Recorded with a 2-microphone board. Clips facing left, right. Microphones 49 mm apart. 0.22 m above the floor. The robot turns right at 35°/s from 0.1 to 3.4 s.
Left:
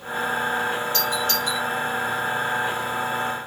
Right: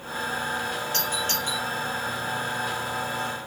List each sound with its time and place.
0.9 s a doorbell: 55° right (ahead or behind), 7.5 m; by 1.6 s 30° right (ahead or behind), 7.5 m